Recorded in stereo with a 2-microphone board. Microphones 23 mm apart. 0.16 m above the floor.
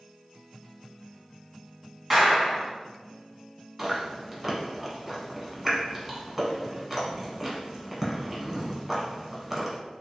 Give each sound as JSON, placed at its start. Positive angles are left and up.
{"t": 2.1, "sound": "a clap", "side_deg": -10, "distance_m": 1.0}
{"t": 3.8, "sound": "chewing", "side_deg": -5, "distance_m": 1.0}